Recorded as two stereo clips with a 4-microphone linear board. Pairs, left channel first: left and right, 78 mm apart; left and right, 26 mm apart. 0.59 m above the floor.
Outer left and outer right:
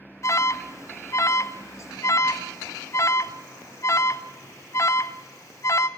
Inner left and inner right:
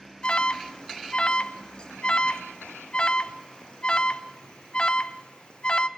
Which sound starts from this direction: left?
An alarm, at 0.2 s.